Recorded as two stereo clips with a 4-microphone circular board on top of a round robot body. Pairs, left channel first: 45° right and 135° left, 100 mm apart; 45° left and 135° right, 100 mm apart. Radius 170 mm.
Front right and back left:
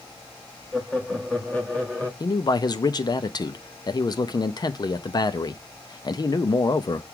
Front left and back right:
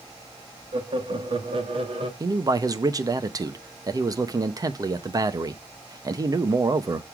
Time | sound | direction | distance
0.7 | laughter | 125° right | 1.8 m
2.2 | a man speaking | 85° right | 1.0 m